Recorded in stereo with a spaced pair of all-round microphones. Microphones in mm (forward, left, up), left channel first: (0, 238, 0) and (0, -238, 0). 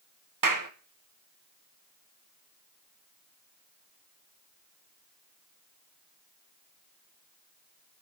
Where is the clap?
40° right (ahead or behind), 0.9 m.